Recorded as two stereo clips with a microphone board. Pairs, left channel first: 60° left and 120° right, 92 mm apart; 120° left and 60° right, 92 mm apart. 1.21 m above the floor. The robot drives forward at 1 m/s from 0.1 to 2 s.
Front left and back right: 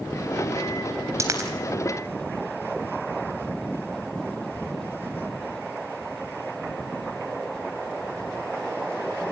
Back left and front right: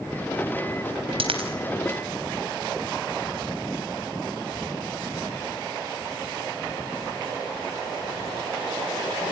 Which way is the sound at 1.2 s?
60° right.